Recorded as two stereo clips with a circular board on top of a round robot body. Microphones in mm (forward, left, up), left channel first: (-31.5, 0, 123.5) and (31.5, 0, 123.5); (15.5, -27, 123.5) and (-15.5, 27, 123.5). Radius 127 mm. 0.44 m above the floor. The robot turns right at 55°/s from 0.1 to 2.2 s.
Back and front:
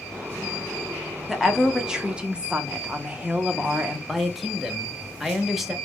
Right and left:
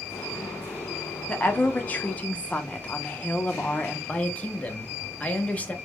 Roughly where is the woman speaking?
Right.